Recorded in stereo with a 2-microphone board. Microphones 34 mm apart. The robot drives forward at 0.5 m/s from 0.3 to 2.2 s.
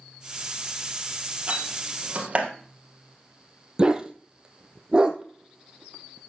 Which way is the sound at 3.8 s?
20° right (ahead or behind).